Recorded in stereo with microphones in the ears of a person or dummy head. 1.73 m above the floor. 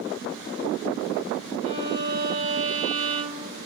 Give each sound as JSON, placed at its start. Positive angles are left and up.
{"t": 1.6, "sound": "a violin", "side_deg": -30, "distance_m": 1.1}